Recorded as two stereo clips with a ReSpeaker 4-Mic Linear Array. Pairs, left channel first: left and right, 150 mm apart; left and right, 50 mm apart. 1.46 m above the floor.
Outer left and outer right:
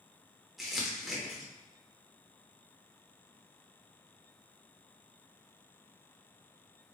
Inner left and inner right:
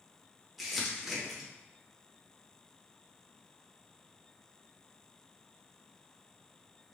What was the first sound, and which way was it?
Crumpling, centre (ahead or behind).